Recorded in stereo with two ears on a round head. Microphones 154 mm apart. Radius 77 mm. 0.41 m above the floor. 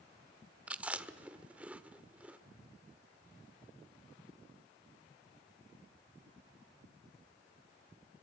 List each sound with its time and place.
0.7 s chewing: 10° right (ahead or behind), 1.2 m